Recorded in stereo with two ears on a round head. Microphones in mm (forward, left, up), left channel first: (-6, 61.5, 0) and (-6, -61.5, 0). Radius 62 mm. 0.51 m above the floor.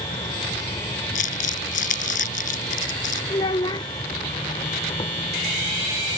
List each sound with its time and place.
0.0 s an insect: 30° left (ahead or behind)
1.1 s crumpling: 65° left (ahead or behind)
3.3 s a child speaking: 35° left (ahead or behind)